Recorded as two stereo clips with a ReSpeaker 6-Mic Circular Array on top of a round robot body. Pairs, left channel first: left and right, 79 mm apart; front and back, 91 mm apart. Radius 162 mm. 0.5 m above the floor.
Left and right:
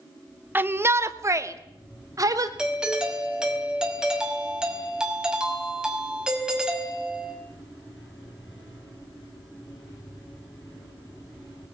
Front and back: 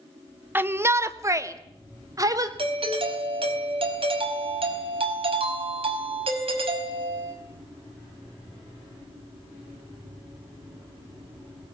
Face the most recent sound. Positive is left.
turn(degrees=-170)